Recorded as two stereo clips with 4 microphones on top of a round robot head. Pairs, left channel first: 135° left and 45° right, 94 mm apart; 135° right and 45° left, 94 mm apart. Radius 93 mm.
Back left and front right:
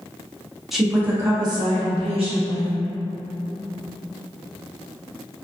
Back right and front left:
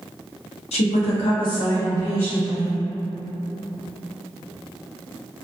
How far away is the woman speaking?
About 0.6 m.